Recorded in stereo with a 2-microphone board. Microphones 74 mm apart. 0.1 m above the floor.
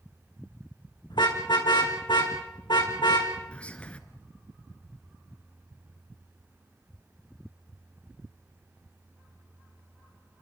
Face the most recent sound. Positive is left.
turn(degrees=15)  # may be behind; listen again after turning